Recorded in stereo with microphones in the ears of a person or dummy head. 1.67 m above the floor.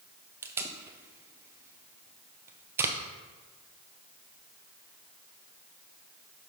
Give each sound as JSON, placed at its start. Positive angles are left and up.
{"t": 0.4, "sound": "tape being pulled", "side_deg": -10, "distance_m": 0.6}